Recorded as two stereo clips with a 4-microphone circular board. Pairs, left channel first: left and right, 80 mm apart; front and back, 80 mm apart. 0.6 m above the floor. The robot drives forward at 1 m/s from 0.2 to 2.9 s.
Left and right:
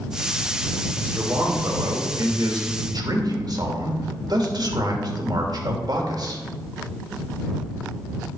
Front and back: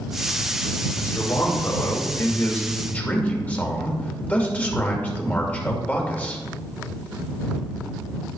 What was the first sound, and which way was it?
A man speaking, 35° right.